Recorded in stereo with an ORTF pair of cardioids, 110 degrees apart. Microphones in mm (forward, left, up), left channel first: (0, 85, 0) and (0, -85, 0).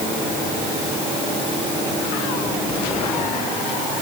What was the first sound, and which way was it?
Only background noise.